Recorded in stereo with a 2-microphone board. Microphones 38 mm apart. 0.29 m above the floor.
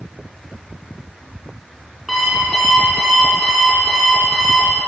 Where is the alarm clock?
5° right (ahead or behind), 3 m.